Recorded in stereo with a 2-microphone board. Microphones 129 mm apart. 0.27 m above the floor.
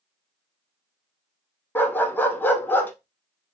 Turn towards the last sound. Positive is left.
turn(degrees=15)  # may be behind; listen again after turning